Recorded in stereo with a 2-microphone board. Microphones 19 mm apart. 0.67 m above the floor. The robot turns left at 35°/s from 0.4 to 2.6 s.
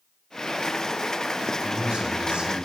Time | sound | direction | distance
1.6 | a man speaking | 55° right | 3 m